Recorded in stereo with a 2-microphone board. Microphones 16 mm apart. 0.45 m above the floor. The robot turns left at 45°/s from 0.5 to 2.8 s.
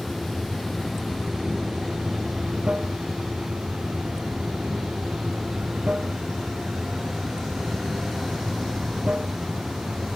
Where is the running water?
5° left; by 10.2 s 95° right.